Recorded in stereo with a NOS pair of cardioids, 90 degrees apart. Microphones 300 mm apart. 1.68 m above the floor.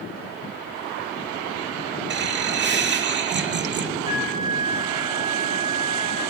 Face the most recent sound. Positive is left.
turn(degrees=-15)